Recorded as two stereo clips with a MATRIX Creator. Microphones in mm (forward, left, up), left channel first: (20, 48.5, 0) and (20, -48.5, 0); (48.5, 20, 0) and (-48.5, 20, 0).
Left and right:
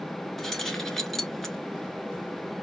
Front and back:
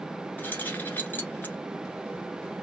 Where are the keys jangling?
10° left, 0.9 m.